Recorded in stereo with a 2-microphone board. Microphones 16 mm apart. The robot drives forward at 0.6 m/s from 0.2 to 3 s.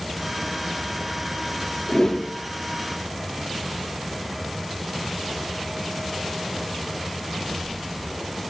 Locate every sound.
1.9 s a whoosh: 40° left (ahead or behind), 0.9 m